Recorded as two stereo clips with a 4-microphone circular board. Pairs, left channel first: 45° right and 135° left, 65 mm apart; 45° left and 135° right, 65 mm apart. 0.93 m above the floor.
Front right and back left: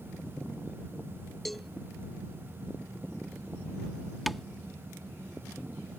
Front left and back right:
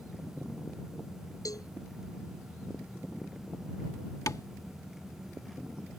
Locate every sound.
1.4 s a cowbell: 40° left
4.3 s tapping: 45° left